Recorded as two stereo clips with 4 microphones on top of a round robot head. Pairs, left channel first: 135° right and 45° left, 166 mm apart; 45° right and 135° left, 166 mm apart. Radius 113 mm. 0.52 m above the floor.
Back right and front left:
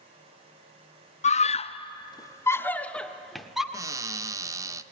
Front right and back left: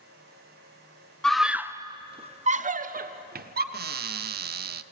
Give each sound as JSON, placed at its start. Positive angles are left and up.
{"t": 1.2, "sound": "a scream", "azimuth_deg": -130, "distance_m": 0.8}
{"t": 3.7, "sound": "a cupboard door", "azimuth_deg": 115, "distance_m": 0.6}